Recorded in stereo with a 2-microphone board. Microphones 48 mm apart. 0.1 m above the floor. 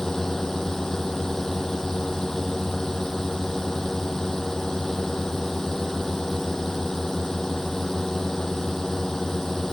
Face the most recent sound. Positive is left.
turn(degrees=10)  # may be behind; listen again after turning